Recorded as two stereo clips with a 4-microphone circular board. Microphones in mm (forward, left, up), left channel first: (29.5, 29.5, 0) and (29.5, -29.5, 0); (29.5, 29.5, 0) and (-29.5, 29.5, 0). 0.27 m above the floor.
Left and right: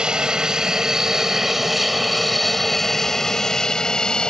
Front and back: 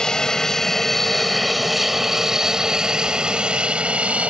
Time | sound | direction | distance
0.0 | an aircraft | 50° right | ?